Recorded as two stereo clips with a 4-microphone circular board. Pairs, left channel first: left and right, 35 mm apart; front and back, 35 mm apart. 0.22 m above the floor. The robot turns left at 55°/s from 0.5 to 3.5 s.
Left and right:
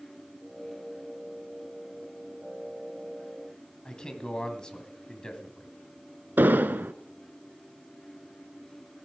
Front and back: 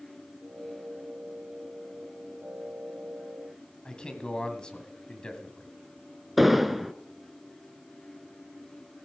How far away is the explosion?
About 0.5 m.